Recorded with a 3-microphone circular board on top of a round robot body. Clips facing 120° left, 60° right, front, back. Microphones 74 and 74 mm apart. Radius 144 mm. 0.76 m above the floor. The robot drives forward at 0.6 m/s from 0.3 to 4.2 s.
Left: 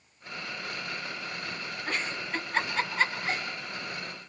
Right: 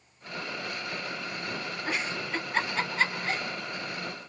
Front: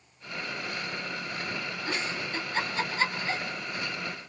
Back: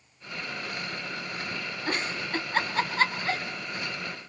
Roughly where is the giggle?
Behind right.